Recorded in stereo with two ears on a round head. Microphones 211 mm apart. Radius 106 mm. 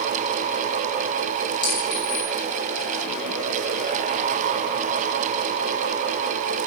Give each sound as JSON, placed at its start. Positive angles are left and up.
{"t": 1.6, "sound": "a clink", "side_deg": 20, "distance_m": 4.0}